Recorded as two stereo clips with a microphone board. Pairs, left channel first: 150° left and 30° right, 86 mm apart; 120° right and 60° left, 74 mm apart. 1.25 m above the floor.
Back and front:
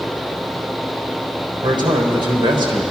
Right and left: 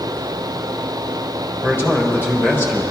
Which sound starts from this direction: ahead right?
A man speaking, at 1.6 s.